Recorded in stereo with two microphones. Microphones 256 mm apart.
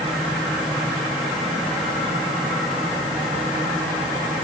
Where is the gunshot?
I don't hear a gunshot.